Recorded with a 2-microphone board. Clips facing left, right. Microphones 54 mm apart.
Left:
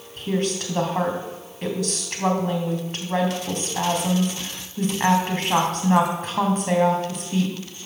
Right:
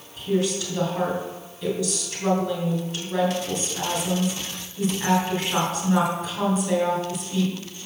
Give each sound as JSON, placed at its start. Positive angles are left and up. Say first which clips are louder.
{"t": 0.2, "sound": "a woman speaking", "louder": "right 1 dB", "side_deg": 50, "distance_m": 3.5}